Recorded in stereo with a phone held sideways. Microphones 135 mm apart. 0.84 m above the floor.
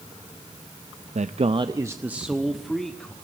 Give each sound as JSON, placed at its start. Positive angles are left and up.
{"t": 1.1, "sound": "a man speaking", "side_deg": -60, "distance_m": 0.6}